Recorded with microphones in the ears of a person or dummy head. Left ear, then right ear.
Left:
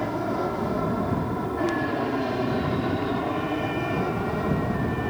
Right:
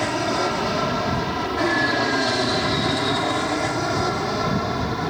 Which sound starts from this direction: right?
An aircraft, at 0.0 s.